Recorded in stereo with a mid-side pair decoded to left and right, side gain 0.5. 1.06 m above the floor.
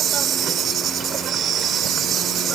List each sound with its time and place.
0.0 s an insect: 60° right